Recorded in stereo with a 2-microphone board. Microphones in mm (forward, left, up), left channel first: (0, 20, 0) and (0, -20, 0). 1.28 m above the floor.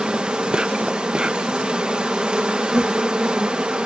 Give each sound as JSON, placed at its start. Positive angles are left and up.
{"t": 0.0, "sound": "an insect", "side_deg": -25}